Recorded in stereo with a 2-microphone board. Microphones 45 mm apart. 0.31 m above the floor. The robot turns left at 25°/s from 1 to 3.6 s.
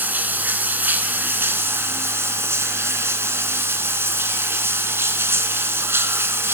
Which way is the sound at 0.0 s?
45° right.